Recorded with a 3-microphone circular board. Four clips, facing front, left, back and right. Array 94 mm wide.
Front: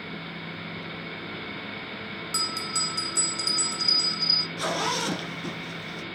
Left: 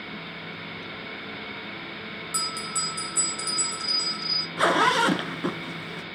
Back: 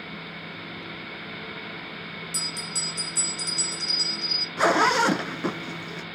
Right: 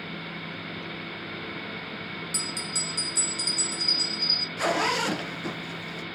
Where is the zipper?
145° left, 1.3 m.